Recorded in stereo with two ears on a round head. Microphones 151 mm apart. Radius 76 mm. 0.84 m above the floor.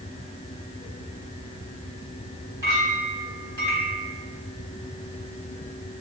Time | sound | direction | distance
2.6 | a clink | 20° right (ahead or behind) | 3 m